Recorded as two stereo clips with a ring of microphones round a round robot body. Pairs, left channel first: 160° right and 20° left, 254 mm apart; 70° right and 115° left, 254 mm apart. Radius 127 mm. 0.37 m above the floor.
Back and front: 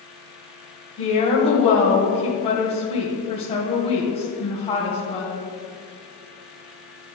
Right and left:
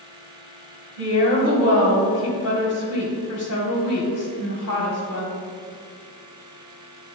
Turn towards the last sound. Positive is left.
turn(degrees=-90)